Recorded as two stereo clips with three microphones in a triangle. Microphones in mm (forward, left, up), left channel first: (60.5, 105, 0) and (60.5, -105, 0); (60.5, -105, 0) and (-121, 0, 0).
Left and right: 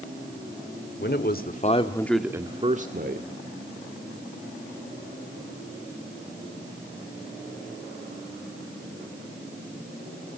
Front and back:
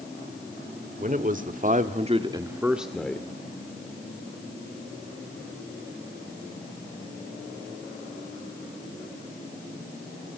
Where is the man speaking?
110° left, 2 m; by 3.3 s 110° right, 2 m.